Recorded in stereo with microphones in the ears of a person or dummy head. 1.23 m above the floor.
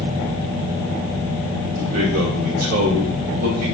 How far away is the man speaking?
About 1.7 m.